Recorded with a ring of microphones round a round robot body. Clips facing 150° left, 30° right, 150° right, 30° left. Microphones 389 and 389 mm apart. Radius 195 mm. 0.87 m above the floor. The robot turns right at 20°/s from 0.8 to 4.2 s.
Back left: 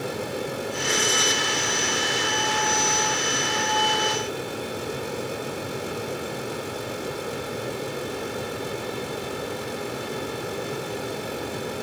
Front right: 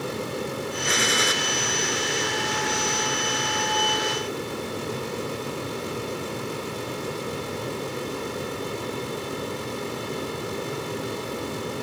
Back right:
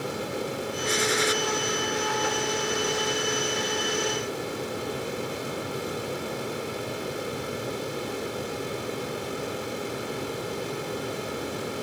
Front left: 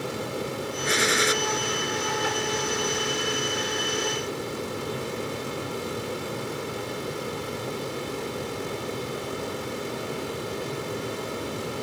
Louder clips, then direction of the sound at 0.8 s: Even, front left 1 dB; 5° right.